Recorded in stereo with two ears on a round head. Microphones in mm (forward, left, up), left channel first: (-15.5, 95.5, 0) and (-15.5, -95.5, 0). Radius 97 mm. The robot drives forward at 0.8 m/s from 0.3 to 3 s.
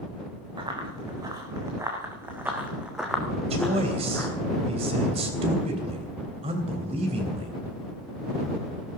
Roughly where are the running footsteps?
Right.